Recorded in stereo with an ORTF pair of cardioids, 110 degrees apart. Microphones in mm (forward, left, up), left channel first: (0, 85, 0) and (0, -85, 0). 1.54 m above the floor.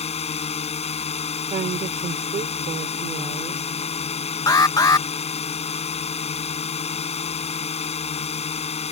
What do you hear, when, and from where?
0.0 s a drone: 35° left
1.5 s a woman speaking: 40° right
4.5 s an alarm: 20° left